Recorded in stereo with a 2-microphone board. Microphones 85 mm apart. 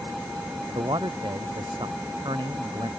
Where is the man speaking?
65° right (ahead or behind).